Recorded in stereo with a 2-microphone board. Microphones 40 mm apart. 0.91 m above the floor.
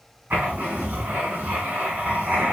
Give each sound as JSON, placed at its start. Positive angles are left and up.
{"t": 0.3, "sound": "writing", "side_deg": -55, "distance_m": 1.3}